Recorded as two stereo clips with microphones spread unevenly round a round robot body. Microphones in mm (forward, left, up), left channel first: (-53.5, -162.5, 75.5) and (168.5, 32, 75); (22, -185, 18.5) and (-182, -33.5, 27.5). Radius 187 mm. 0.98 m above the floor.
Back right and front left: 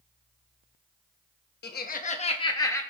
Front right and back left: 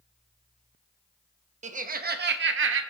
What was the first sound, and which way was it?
Laughter, 165° right.